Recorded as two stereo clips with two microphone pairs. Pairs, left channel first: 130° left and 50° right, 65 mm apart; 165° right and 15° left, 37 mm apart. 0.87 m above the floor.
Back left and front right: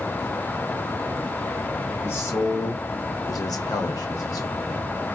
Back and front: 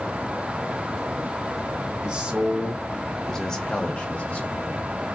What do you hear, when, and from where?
2.0 s a man speaking: 75° left, 1.0 m; by 5.0 s 155° left, 1.5 m